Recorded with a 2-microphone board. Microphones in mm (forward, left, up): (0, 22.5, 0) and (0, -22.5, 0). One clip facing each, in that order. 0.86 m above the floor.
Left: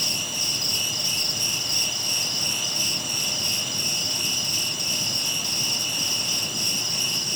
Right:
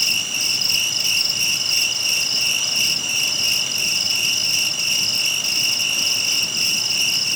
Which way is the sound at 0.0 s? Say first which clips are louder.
Right 6 dB; 80° right.